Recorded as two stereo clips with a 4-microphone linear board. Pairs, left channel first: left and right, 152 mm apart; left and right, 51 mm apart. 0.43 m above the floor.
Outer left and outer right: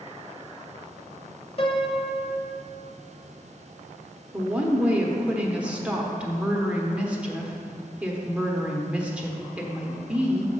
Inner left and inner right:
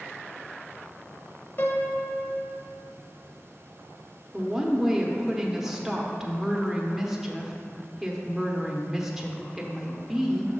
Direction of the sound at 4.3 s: 10° right (ahead or behind).